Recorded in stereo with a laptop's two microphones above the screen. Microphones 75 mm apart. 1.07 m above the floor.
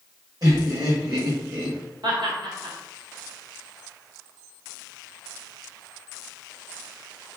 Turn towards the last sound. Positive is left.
turn(degrees=-70)  # may be behind; listen again after turning